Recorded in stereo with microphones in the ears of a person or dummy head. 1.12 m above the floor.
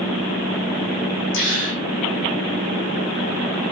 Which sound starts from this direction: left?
A gasp, at 1.3 s.